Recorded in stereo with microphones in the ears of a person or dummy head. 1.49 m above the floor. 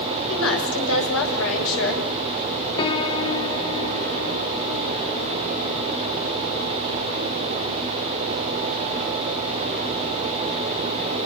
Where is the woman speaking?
90° left, 8.5 m.